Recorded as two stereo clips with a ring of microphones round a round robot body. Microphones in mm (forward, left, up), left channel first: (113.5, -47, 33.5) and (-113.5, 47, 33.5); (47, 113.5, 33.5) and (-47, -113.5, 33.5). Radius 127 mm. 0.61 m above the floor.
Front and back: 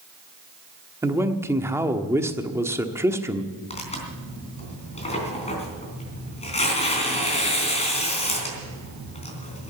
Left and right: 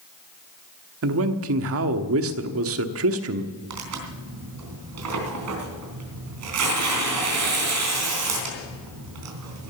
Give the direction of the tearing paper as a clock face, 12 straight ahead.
3 o'clock.